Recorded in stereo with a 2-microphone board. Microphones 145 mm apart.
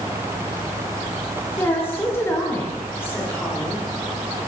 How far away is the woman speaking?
About 3 m.